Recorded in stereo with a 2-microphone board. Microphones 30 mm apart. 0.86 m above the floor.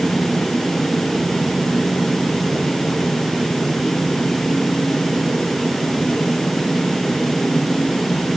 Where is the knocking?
I don't hear knocking.